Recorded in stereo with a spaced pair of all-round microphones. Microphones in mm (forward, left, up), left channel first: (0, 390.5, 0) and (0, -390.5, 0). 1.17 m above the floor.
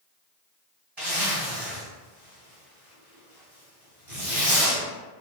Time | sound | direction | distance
1.0 | a zipper | 35° right (ahead or behind) | 1.7 m